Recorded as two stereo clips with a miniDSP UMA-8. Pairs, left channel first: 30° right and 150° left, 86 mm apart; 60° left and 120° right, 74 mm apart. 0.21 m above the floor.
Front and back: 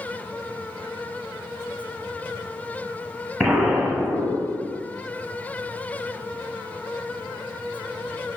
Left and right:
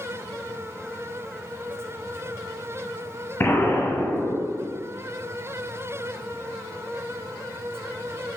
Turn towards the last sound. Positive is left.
turn(degrees=70)